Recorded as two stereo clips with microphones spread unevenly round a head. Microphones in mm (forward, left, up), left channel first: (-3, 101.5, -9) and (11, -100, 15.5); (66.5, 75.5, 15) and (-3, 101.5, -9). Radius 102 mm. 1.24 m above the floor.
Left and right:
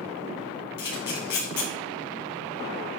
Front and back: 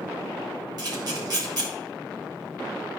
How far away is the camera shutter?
About 4 m.